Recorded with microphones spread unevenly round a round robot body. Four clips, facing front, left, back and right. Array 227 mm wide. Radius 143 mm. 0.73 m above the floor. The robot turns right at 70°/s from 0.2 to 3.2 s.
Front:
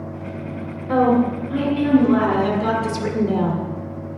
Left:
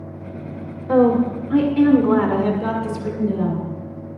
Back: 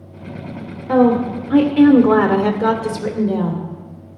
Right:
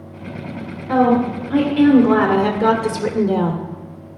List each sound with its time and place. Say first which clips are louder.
0.9 s a woman speaking: even, back 3 dB; 125° left, 2.0 m; by 3.6 s 75° right, 2.0 m